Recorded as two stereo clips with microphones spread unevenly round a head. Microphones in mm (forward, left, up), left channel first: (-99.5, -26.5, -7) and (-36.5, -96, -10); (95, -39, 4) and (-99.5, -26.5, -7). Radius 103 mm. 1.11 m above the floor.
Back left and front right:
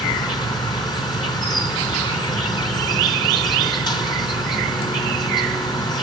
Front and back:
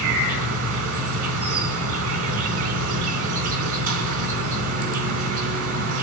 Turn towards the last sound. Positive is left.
turn(degrees=170)